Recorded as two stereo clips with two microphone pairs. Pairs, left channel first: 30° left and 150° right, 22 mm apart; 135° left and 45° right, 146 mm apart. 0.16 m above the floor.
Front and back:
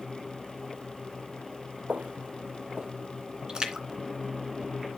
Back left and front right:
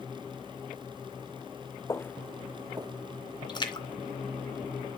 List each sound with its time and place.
1.9 s footsteps: 160° right, 0.6 m; by 2.9 s 100° right, 0.6 m
3.5 s a splash: 175° left, 2 m